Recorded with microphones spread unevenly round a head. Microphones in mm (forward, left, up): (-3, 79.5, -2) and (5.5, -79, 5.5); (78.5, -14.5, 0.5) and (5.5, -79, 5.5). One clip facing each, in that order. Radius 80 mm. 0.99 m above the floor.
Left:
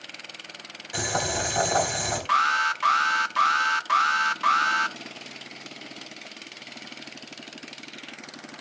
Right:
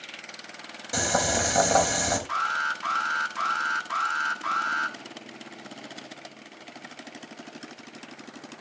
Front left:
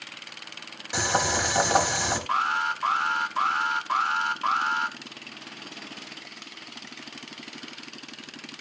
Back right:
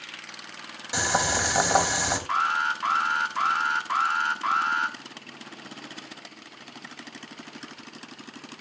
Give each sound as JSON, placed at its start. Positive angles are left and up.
{"t": 0.9, "sound": "boiling", "azimuth_deg": -55, "distance_m": 4.5}
{"t": 2.3, "sound": "an alarm", "azimuth_deg": 115, "distance_m": 1.3}